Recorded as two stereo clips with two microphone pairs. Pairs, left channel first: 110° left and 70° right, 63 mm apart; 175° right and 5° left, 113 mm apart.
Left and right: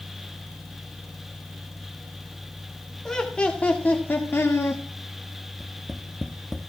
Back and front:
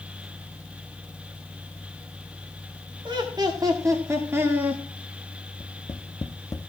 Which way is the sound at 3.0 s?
30° left.